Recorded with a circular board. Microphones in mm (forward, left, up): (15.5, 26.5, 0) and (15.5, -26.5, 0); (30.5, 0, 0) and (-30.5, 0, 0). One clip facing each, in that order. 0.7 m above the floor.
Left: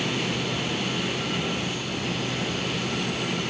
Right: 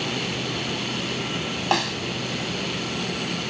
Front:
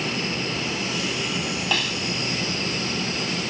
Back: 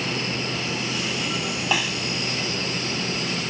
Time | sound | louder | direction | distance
1.7 | a snare drum | right 7 dB, back 2 dB | 100° right | ?